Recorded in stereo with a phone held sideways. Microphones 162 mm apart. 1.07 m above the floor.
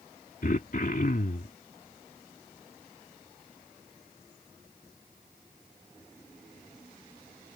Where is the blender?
No blender in this recording.